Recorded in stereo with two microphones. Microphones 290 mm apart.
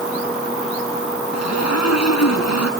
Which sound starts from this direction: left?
A zipper, at 1.3 s.